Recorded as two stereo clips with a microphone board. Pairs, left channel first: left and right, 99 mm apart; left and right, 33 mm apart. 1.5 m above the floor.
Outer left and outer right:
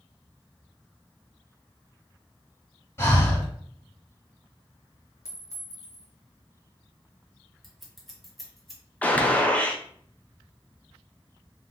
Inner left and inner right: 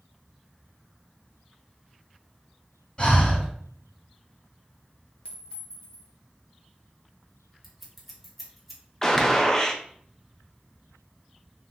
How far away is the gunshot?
About 0.6 m.